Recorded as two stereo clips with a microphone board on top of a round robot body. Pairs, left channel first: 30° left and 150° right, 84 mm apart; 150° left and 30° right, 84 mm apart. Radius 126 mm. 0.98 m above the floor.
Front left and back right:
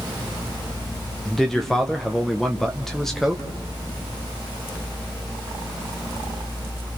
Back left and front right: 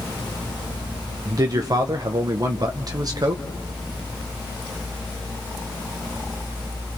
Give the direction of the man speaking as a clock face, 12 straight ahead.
2 o'clock.